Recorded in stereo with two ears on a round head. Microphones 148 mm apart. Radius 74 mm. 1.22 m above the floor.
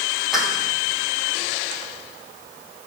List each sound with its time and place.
0.3 s a clap: centre (ahead or behind), 9 m